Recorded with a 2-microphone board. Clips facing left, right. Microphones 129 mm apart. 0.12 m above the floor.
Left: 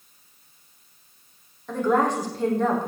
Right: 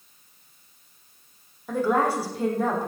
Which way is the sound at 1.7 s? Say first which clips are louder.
Left 1 dB; 10° right (ahead or behind).